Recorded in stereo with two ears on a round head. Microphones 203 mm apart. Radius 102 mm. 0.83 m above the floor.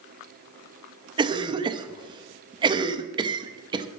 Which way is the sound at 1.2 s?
20° right (ahead or behind).